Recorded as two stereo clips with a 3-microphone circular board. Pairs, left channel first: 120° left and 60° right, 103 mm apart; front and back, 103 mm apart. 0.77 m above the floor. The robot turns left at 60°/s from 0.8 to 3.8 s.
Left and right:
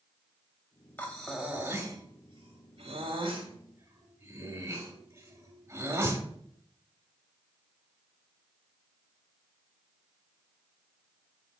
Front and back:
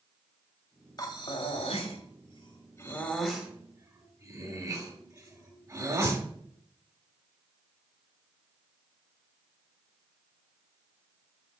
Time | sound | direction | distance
1.0 | breathing | 45° left | 1.3 m